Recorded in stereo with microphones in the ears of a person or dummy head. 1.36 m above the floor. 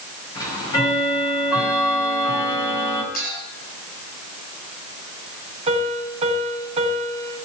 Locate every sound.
0.3 s ticking: 20° left (ahead or behind), 5.5 m
3.1 s a clink: 50° left (ahead or behind), 10 m
5.7 s a piano: 35° right (ahead or behind), 3.5 m